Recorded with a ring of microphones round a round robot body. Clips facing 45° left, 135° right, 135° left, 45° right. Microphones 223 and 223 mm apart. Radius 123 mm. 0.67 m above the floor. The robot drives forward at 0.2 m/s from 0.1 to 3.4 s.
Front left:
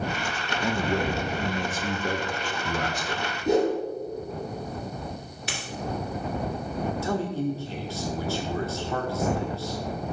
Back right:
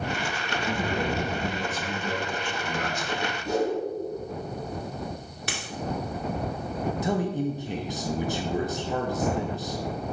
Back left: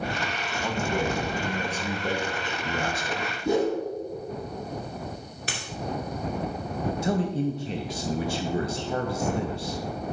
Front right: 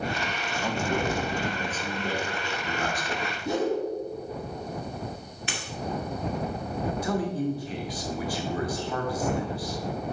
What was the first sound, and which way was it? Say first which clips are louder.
A man speaking: front left 3 dB, even; 45° left.